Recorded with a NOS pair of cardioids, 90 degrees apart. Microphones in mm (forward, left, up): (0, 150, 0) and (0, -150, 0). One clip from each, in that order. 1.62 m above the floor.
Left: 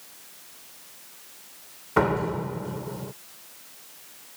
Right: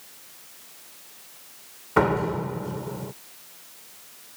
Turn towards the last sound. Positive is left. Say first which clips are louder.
# right 1 dB
turn(degrees=-10)